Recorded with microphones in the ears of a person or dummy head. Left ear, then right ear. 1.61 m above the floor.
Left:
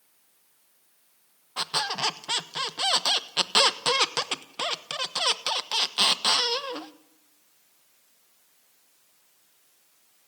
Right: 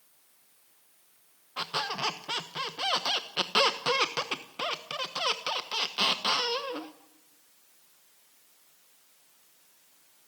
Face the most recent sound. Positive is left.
turn(degrees=25)  # may be behind; listen again after turning